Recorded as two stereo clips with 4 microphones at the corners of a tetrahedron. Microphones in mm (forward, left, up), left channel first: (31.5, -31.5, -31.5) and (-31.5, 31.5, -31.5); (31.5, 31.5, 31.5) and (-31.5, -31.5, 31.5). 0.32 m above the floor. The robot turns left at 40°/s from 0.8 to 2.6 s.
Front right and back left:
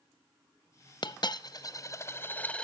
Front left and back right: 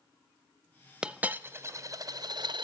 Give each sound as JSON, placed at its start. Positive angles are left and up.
{"t": 1.0, "sound": "a dropped coin", "azimuth_deg": -55, "distance_m": 0.6}